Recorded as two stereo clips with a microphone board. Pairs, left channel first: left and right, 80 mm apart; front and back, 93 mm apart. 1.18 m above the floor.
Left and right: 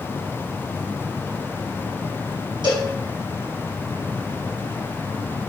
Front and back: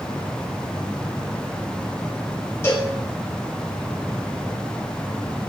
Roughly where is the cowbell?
Ahead right.